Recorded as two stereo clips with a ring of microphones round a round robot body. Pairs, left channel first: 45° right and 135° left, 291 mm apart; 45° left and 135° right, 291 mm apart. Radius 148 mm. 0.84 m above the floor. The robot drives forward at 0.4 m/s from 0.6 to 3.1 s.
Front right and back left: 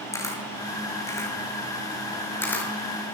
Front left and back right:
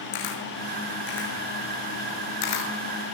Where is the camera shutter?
35° left, 8 m; by 2.7 s 40° left, 7 m.